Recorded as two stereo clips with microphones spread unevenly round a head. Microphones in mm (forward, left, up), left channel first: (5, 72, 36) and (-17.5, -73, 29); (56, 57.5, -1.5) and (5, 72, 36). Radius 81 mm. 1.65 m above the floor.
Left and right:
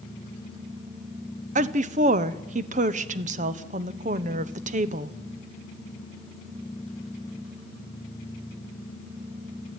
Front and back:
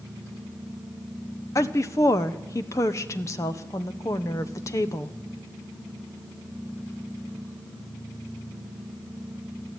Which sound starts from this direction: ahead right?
A woman speaking, at 1.6 s.